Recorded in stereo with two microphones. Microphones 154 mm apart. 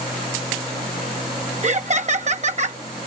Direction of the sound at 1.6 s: 50° right (ahead or behind).